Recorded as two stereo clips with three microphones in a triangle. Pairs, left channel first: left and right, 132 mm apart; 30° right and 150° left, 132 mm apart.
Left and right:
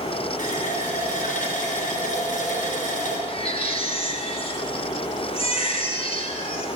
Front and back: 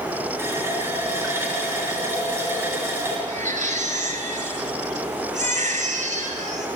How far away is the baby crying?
About 4.5 m.